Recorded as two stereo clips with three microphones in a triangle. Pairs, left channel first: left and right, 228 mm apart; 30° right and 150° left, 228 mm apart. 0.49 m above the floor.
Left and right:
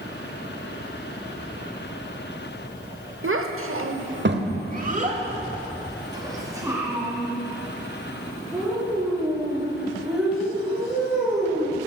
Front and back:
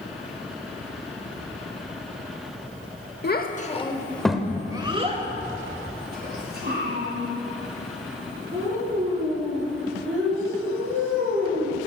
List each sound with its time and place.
3.2 s a child speaking: 70° right, 0.9 m; by 11.8 s straight behind, 5.5 m